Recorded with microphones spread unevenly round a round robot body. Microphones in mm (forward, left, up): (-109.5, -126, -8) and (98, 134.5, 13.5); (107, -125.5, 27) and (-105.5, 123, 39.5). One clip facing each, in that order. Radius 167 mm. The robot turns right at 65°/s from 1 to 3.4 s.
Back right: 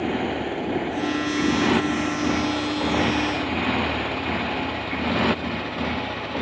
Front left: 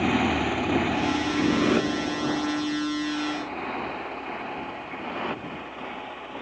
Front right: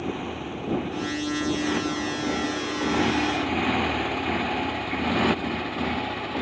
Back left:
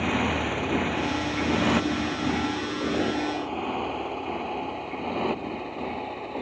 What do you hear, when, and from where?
0.0 s a motorcycle: 115° left; by 6.4 s 105° right